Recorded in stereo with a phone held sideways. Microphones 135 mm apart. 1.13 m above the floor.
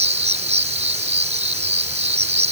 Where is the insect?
55° right (ahead or behind).